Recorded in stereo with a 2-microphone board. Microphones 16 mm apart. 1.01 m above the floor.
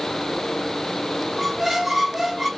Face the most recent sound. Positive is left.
turn(degrees=-5)  # may be behind; listen again after turning